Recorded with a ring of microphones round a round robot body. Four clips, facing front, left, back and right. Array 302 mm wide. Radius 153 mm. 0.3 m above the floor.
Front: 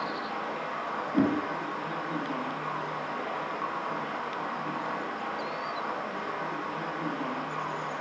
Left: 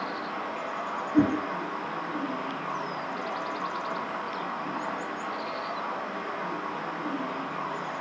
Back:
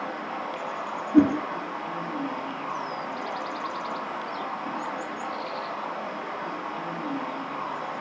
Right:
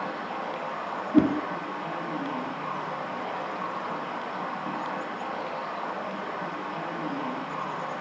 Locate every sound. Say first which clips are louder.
0.0 s running water: right 1 dB, back 1 dB; 115° right, 2.5 m
1.1 s a whoosh: right 2 dB, back 8 dB; 120° right, 1.4 m